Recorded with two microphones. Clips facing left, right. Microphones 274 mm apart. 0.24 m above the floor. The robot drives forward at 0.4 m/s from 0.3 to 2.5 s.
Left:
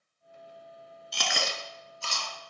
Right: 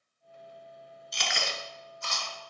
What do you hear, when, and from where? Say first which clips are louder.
1.1 s chewing: left 2 dB; 60° left (ahead or behind), 0.5 m; by 2.3 s 30° left (ahead or behind), 0.9 m